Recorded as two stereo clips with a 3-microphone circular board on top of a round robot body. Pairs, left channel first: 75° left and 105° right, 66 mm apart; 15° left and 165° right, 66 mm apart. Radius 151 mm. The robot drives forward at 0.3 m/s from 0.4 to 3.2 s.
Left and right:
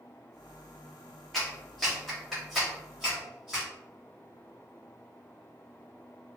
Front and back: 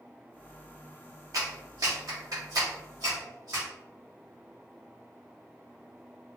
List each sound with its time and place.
1.3 s a clap: 160° left, 0.7 m; by 3.6 s 170° left, 1.2 m